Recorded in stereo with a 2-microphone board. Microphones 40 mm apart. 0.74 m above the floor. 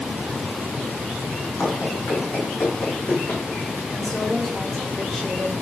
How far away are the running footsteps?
About 2.5 m.